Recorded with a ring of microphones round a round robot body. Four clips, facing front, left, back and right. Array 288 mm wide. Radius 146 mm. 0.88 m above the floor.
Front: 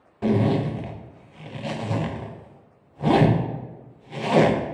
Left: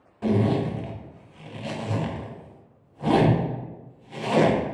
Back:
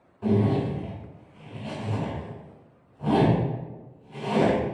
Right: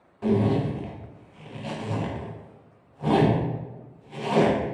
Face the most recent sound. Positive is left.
turn(degrees=5)